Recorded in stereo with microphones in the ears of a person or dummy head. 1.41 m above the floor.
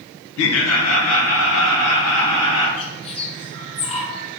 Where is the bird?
35° left (ahead or behind), 0.7 m.